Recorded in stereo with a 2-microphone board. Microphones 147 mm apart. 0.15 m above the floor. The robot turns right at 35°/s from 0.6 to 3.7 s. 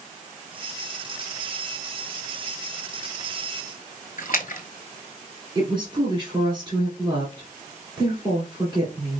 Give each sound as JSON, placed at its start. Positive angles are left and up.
{"t": 4.2, "sound": "a splash", "side_deg": 65, "distance_m": 0.6}
{"t": 5.5, "sound": "a woman speaking", "side_deg": -30, "distance_m": 1.9}